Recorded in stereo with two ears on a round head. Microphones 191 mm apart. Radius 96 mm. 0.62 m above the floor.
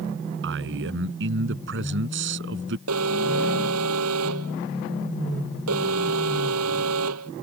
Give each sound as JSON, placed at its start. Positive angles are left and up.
{"t": 0.4, "sound": "a man speaking", "side_deg": -65}
{"t": 2.9, "sound": "an alarm", "side_deg": -85}